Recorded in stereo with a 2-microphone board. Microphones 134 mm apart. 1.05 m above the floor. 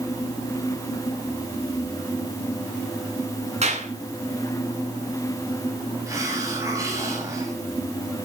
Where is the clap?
55° right (ahead or behind), 8.5 m.